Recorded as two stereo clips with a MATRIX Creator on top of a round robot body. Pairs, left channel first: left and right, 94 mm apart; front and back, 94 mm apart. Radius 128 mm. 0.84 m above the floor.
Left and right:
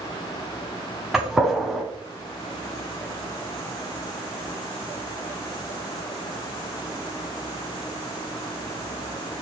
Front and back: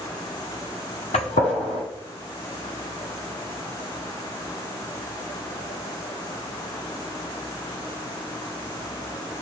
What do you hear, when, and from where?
1.1 s a gunshot: 5° right, 1.1 m